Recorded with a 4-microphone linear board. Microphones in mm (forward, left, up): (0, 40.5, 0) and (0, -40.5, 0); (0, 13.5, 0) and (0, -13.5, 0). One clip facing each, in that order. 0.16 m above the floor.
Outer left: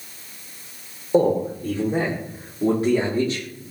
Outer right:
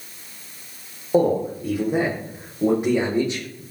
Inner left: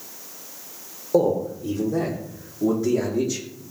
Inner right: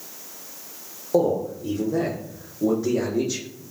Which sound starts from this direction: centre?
A man speaking, at 1.1 s.